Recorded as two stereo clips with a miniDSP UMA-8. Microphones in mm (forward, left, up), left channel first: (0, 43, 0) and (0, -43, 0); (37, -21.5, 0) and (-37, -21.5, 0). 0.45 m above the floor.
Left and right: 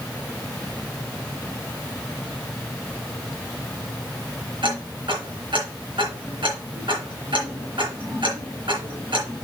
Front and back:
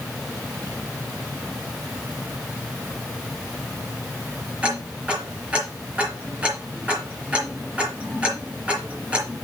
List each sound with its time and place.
4.6 s ticking: 105° right, 4.5 m